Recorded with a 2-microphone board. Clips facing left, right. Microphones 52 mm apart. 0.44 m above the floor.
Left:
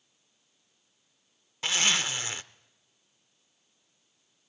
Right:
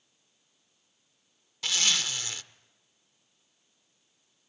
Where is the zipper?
25° left (ahead or behind), 0.7 m.